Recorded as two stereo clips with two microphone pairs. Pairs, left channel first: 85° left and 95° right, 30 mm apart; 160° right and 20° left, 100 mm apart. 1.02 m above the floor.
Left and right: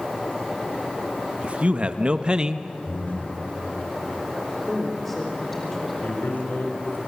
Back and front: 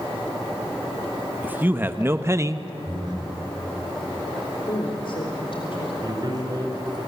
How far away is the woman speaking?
About 3.5 m.